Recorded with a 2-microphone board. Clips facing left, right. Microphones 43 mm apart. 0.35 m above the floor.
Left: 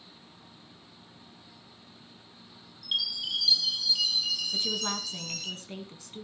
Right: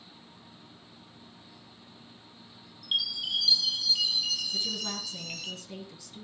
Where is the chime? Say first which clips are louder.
Right 1 dB; 5° right (ahead or behind), 3 m.